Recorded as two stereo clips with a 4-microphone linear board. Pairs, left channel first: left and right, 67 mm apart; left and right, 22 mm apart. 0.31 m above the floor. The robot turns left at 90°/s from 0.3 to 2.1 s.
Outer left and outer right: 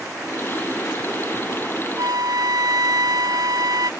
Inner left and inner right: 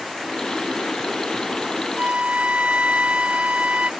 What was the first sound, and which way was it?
A flute, 60° right (ahead or behind).